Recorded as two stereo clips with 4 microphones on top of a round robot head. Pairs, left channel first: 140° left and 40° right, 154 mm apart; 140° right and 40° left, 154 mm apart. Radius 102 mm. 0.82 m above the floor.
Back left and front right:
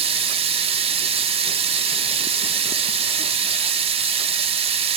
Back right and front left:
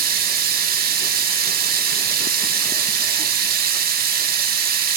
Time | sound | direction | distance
0.0 | running water | 15° left | 1.2 m